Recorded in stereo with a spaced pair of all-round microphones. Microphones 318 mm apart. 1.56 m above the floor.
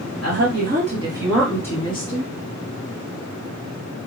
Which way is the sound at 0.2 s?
50° right (ahead or behind).